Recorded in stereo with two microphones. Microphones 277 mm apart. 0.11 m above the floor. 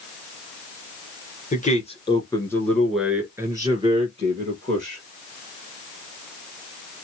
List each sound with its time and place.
1.5 s a man speaking: 30° left (ahead or behind), 1.4 m; by 5.0 s 35° right (ahead or behind), 1.8 m